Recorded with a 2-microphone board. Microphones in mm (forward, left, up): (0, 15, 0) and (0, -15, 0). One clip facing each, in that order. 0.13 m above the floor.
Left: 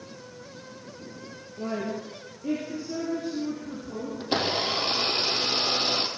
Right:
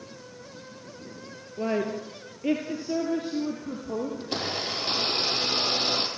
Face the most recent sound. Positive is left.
turn(degrees=35)  # may be behind; listen again after turning